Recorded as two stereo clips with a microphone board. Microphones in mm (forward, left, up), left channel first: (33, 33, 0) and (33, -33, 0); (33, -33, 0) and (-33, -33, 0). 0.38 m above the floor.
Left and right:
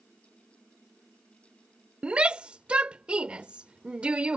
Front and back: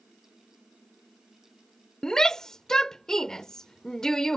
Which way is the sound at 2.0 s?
65° right.